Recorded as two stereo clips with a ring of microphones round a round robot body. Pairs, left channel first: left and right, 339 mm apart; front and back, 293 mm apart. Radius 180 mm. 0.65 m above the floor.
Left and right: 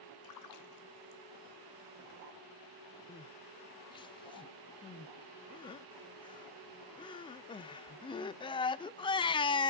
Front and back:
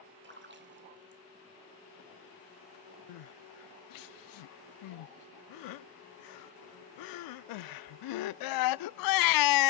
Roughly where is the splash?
Behind left.